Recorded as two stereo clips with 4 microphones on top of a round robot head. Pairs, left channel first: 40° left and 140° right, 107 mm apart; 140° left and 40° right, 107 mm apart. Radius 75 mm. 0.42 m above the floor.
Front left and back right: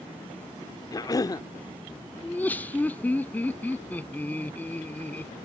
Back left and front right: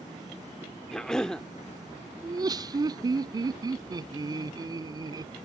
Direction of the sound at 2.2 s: 25° right.